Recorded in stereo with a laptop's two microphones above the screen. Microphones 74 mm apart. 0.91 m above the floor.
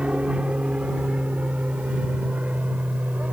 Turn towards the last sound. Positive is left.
turn(degrees=-20)  # may be behind; listen again after turning